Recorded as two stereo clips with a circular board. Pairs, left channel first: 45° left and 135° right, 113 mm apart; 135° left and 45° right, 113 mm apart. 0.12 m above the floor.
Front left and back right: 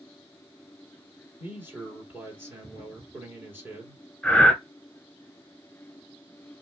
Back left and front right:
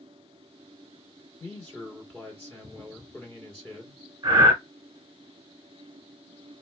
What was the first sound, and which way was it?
A man speaking, 160° right.